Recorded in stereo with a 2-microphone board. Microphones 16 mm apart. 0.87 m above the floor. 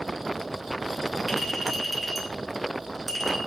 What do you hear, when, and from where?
1.3 s a clink: 10° right (ahead or behind), 2.5 m